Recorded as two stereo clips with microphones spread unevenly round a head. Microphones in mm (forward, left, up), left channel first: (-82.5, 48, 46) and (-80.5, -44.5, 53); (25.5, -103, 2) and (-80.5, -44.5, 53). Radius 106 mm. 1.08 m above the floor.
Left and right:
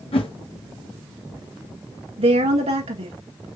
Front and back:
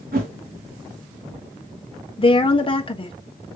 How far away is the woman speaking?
About 1.5 m.